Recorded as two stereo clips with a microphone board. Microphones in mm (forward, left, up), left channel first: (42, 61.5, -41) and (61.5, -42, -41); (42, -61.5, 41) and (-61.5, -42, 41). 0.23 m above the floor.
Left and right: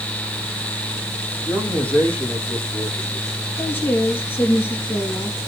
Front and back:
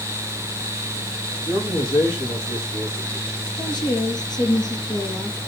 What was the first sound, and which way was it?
A man speaking, 25° left.